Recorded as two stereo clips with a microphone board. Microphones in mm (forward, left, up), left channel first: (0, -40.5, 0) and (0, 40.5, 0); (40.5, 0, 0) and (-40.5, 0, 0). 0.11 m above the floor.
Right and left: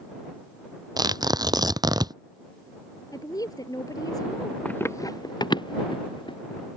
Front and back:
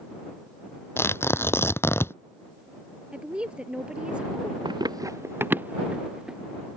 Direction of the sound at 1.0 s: 60° left.